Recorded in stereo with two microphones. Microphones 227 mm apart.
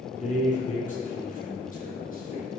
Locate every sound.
0.1 s a man speaking: 30° left (ahead or behind), 3 m; by 2.5 s 35° left (ahead or behind), 5.5 m